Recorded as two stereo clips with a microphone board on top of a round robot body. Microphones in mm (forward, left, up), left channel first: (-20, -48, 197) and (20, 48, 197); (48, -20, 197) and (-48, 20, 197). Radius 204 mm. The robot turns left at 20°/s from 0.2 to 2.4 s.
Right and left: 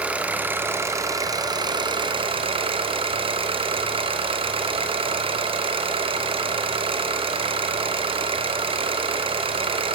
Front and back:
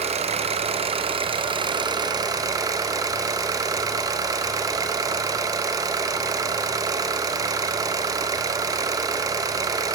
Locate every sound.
0.0 s an engine running: 145° left, 1.8 m; by 10.0 s 100° left, 1.8 m